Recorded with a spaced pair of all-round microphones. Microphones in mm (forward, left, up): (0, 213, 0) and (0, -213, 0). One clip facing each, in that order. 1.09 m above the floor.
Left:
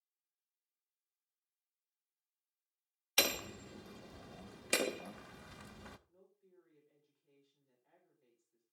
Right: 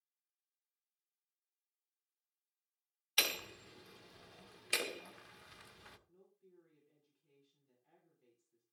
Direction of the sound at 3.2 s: 65° left (ahead or behind).